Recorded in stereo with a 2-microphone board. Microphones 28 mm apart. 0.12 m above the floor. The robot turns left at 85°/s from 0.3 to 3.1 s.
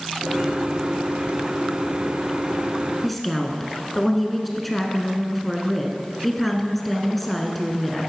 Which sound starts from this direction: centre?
A woman speaking, at 3.0 s.